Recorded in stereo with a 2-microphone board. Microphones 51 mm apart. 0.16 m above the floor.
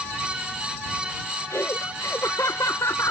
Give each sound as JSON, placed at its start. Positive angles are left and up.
{"t": 1.5, "sound": "laughter", "side_deg": 80}